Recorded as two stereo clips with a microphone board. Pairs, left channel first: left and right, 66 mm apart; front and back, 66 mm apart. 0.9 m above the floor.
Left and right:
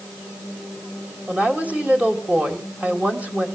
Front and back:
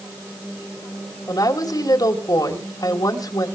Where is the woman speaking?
20° right, 4 m.